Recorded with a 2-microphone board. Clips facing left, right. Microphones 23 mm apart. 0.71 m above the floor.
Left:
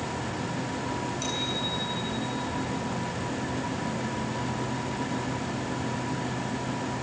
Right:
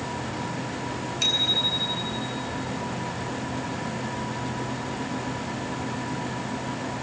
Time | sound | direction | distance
1.2 | a bicycle bell | 60° right (ahead or behind) | 5.5 m